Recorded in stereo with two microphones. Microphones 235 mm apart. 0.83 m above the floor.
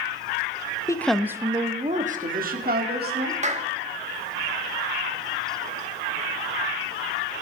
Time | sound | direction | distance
0.9 | a woman speaking | 15° left (ahead or behind) | 0.8 m
3.4 | a clap | 30° right (ahead or behind) | 1.4 m